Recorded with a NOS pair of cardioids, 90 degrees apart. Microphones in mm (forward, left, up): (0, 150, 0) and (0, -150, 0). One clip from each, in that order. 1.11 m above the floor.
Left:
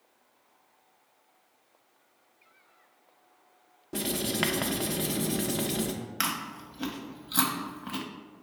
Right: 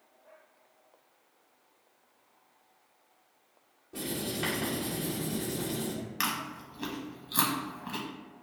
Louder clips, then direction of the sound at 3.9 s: Left 4 dB; 65° left.